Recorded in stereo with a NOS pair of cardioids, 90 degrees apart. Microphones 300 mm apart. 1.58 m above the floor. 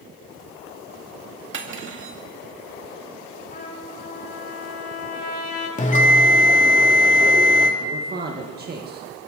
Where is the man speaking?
30° right, 2.0 m.